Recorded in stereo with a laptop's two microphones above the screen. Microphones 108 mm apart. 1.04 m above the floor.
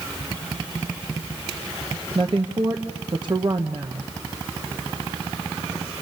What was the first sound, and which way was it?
A woman speaking, 45° right (ahead or behind).